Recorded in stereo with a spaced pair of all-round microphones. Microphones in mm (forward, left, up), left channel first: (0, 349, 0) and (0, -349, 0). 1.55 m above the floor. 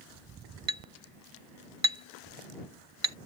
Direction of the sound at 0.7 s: 45° right (ahead or behind).